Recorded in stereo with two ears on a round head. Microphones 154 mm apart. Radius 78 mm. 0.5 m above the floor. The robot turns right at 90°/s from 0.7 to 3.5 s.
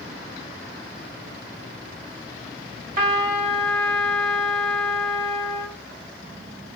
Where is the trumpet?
50° right, 1.1 m; by 5.8 s straight ahead, 1.1 m.